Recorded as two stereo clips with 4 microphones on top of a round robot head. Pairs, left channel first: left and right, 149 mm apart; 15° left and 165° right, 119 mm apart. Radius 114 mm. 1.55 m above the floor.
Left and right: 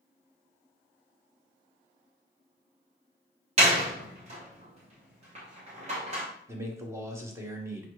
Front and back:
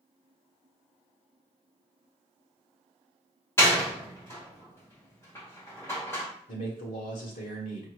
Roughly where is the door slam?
Ahead right.